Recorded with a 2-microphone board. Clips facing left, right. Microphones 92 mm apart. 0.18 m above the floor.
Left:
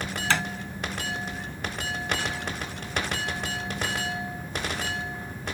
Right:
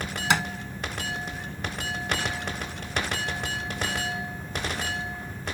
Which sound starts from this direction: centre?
Tapping, at 0.3 s.